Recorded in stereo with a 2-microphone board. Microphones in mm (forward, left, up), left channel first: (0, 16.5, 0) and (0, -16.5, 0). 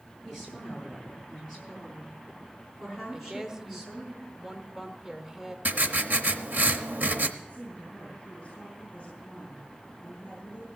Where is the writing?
55° right (ahead or behind), 0.8 m.